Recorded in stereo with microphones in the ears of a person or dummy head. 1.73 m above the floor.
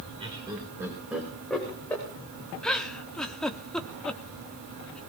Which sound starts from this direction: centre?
A giggle, at 2.6 s.